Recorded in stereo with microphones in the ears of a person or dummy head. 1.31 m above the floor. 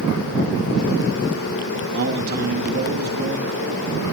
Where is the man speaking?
55° right (ahead or behind), 2 m.